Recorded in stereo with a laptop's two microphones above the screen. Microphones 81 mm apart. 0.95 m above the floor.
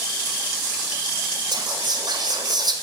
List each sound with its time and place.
1.5 s whispering: 55° right (ahead or behind), 0.9 m